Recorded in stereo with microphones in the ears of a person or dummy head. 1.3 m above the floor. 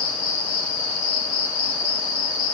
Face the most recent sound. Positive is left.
turn(degrees=65)  # may be behind; listen again after turning